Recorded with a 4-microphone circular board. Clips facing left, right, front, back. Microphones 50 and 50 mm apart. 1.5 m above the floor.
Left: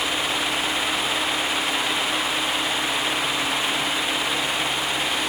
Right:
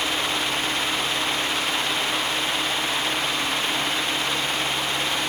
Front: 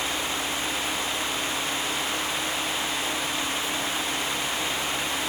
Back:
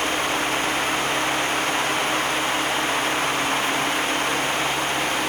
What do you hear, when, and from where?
Only background noise.